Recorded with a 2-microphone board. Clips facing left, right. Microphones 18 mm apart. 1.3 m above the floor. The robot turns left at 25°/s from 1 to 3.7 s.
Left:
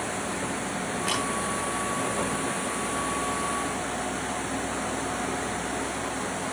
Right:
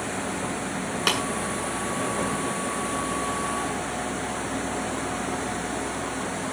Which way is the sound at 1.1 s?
80° right.